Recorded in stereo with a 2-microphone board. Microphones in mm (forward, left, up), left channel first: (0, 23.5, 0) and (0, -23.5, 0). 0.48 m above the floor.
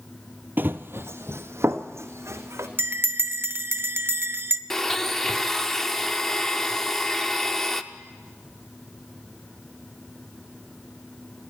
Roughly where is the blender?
Centre.